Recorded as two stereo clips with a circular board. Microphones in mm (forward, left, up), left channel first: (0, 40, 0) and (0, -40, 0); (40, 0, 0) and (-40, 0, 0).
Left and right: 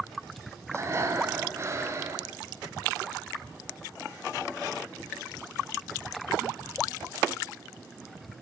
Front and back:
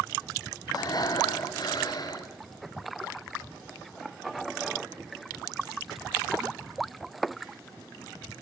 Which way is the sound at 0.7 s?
35° right.